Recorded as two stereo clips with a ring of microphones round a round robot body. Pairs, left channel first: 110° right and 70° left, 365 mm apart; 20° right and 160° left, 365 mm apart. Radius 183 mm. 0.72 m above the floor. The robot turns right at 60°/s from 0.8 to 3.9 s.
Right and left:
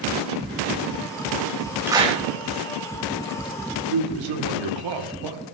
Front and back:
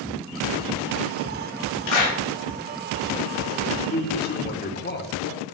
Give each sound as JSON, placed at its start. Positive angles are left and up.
{"t": 1.9, "sound": "a clap", "azimuth_deg": -15, "distance_m": 3.0}
{"t": 3.9, "sound": "a man speaking", "azimuth_deg": 40, "distance_m": 1.8}